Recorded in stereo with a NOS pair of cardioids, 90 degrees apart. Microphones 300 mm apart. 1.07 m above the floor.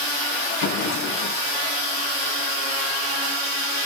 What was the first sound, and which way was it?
A drawer, 60° left.